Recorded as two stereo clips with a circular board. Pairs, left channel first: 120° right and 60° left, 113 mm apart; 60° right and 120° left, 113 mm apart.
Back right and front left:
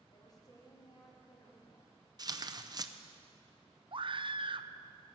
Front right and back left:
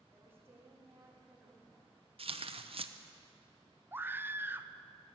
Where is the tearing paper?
110° left, 0.6 m.